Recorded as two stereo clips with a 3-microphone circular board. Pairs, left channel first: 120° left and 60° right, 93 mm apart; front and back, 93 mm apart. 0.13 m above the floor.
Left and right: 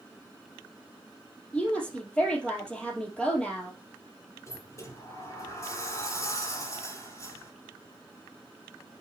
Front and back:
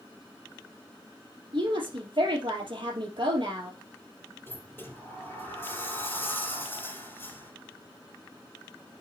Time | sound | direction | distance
1.5 | a woman speaking | 165° right | 3 m
4.5 | a sliding door | 65° left | 4 m